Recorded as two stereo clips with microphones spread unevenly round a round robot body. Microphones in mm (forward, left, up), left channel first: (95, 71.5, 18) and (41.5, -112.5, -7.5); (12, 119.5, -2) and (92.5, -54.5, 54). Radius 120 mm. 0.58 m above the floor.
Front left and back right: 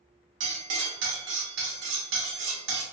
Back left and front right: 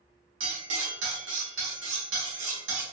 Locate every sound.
0.4 s cutlery clinking: 105° right, 1.0 m